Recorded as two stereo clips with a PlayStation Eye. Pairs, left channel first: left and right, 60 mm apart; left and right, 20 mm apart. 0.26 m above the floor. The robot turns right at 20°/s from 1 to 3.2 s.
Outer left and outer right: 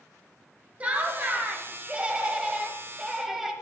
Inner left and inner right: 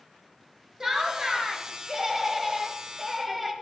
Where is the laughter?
60° right, 1.5 m; by 3.5 s 15° right, 1.5 m.